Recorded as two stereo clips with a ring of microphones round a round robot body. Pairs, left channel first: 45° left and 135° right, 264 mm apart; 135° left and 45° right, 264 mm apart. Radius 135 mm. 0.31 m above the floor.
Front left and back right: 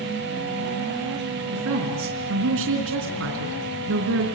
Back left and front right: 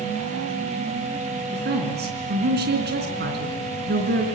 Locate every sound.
1.5 s a woman speaking: 95° right, 3.5 m